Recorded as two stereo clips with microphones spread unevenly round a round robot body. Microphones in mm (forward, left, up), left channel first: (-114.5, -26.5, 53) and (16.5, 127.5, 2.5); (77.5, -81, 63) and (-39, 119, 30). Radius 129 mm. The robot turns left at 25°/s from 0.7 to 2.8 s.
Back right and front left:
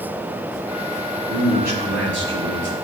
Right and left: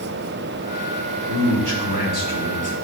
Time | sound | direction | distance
1.3 | a man speaking | 100° left | 4.5 m